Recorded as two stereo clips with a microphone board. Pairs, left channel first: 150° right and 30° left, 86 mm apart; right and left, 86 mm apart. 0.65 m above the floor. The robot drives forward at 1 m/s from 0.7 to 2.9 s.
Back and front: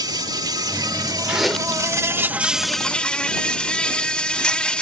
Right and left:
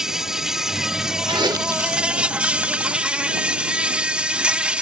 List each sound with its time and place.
0.0 s an insect: 5° left; by 4.8 s 150° left
1.3 s chewing: 105° left; by 4.8 s 165° left